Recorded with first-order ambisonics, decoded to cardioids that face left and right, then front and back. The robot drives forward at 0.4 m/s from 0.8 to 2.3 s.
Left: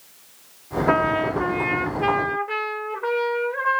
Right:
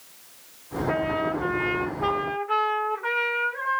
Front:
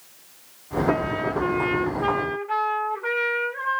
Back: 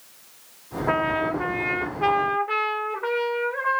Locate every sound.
0.9 s a trumpet: 120° left, 0.8 m; by 3.8 s 145° left, 1.1 m